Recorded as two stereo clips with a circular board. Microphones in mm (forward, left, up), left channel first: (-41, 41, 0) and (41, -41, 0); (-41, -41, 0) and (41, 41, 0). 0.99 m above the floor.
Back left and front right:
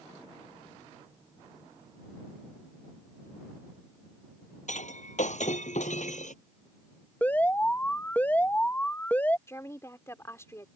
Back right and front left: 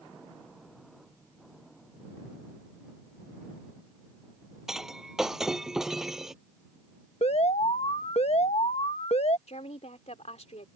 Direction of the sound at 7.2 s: 150° right.